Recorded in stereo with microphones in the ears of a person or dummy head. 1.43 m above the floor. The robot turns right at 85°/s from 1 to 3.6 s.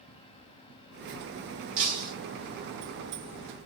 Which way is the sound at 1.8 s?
55° right.